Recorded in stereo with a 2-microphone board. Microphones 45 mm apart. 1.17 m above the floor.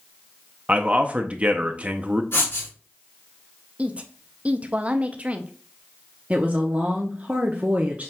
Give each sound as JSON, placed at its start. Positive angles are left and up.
{"t": 0.7, "sound": "a man speaking", "side_deg": -35, "distance_m": 0.6}
{"t": 2.3, "sound": "writing", "side_deg": 60, "distance_m": 3.0}
{"t": 3.8, "sound": "a woman speaking", "side_deg": -30, "distance_m": 0.5}
{"t": 6.3, "sound": "a woman speaking", "side_deg": -35, "distance_m": 0.6}